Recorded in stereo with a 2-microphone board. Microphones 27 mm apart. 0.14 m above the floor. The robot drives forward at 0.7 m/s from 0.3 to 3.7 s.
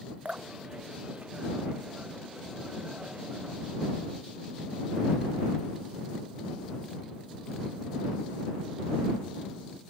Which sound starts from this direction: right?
Dripping, at 0.2 s.